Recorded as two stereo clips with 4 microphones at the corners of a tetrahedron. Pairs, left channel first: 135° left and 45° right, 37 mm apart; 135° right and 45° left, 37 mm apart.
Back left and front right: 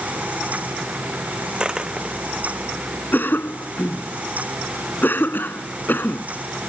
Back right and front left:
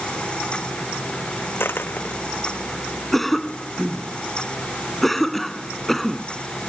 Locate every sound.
1.6 s a dropped coin: 110° right
3.1 s a cough: 145° left